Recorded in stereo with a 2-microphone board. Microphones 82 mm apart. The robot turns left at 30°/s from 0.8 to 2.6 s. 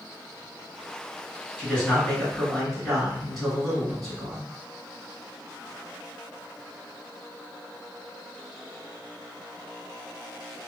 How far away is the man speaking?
About 1.9 m.